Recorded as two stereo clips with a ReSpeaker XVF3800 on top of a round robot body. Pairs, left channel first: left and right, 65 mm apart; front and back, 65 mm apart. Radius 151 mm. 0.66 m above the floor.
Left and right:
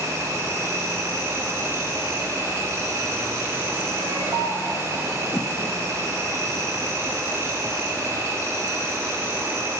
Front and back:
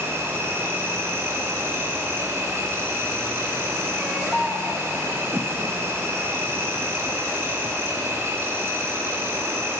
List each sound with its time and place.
0.0 s an insect: 130° right, 2 m
4.0 s a baby crying: 105° right, 2.0 m
5.3 s a whoosh: 130° left, 1.1 m